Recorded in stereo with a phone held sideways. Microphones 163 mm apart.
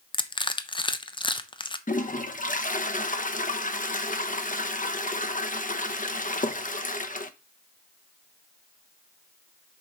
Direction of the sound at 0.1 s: 30° left (ahead or behind).